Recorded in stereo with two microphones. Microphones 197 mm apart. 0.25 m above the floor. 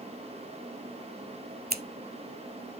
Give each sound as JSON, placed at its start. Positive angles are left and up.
{"t": 1.7, "sound": "scissors", "side_deg": -55, "distance_m": 0.6}